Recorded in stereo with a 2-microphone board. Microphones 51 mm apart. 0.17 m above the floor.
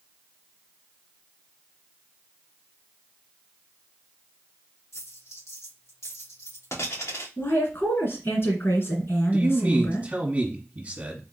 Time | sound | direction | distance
4.9 | a dropped coin | 75° left (ahead or behind) | 1.9 m
7.4 | a woman speaking | 55° left (ahead or behind) | 2 m
9.3 | a man speaking | 30° right (ahead or behind) | 1.4 m